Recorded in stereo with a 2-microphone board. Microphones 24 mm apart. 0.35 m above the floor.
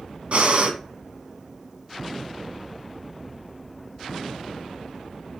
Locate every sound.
0.3 s breathing: 60° right (ahead or behind), 0.9 m